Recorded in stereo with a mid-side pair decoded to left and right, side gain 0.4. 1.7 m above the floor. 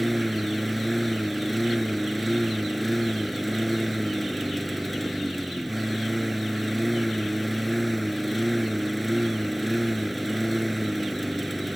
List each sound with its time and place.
0.0 s a lawn mower: straight ahead